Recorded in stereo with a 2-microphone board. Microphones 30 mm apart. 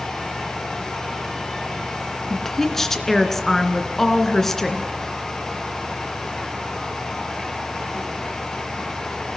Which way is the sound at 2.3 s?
15° left (ahead or behind).